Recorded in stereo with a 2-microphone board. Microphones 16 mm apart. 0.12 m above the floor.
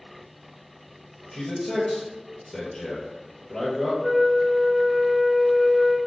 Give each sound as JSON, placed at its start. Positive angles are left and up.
{"t": 1.3, "sound": "a man speaking", "side_deg": 30, "distance_m": 1.9}
{"t": 4.0, "sound": "a flute", "side_deg": -5, "distance_m": 0.7}